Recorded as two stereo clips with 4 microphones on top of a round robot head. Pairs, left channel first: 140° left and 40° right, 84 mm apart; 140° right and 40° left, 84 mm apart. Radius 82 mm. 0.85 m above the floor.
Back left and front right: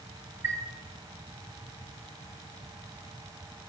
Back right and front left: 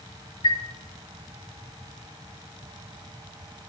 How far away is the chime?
About 2.5 m.